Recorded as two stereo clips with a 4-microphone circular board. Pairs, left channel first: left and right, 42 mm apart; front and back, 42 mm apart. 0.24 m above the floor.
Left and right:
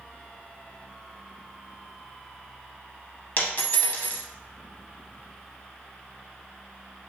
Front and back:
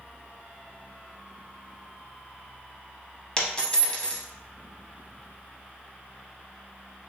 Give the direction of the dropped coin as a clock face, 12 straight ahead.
10 o'clock.